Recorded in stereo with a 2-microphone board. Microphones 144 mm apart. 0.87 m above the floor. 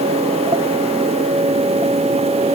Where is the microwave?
I don't hear a microwave.